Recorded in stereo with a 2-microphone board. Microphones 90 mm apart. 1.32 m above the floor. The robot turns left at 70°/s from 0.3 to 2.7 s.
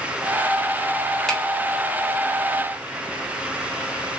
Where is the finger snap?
5° left (ahead or behind), 1.0 m; by 1.4 s 5° right (ahead or behind), 1.0 m.